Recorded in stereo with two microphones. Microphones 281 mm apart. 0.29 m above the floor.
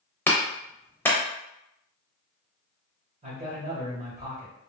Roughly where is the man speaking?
Right.